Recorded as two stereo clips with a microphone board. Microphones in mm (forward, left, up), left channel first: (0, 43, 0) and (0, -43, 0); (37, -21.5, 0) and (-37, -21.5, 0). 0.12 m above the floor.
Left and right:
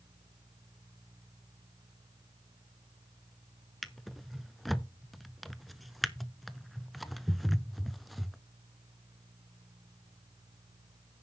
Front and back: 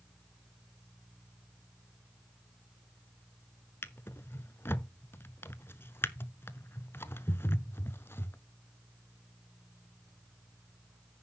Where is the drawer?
Straight ahead, 0.7 m.